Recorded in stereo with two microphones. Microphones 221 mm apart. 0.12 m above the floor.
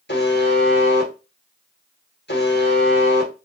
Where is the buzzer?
55° left (ahead or behind), 1.7 m.